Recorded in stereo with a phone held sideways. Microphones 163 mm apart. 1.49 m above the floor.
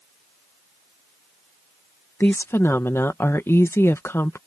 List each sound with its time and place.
2.2 s a woman speaking: 15° left (ahead or behind)